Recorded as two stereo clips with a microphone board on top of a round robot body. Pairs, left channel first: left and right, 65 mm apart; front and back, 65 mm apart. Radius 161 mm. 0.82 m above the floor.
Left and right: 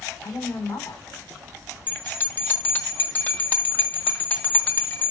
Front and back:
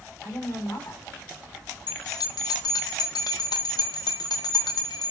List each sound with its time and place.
0.2 s a woman speaking: 55° left, 6 m
1.9 s a bell: 25° left, 1.4 m